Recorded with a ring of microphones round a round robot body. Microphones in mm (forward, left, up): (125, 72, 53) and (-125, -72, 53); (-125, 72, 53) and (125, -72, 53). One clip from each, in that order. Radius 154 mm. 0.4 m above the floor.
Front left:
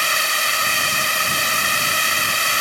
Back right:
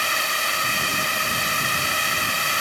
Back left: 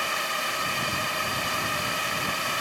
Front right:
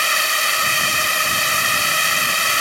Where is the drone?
30° right.